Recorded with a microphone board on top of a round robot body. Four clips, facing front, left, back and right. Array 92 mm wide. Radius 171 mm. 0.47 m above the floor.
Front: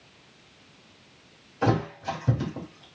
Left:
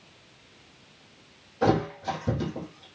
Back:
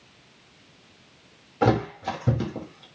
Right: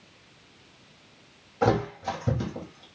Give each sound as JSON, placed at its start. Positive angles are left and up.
{"t": 1.6, "sound": "a thud", "azimuth_deg": -170, "distance_m": 8.5}